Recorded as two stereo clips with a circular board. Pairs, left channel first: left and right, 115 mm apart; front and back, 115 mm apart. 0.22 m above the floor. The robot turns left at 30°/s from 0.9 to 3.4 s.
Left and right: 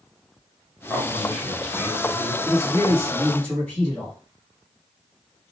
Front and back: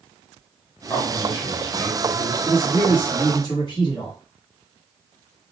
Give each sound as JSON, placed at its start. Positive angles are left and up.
{"t": 0.9, "sound": "a man speaking", "azimuth_deg": 40, "distance_m": 1.2}
{"t": 2.4, "sound": "a man speaking", "azimuth_deg": 45, "distance_m": 1.6}